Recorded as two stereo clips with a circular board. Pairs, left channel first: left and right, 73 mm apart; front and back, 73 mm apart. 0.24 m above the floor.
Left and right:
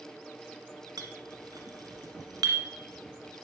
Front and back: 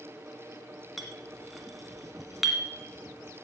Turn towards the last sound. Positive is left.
turn(degrees=-90)